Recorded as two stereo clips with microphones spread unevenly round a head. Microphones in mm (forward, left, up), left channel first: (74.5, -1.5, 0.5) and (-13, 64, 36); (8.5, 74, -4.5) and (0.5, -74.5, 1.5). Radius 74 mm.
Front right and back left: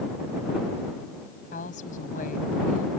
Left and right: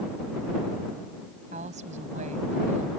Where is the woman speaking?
50° right.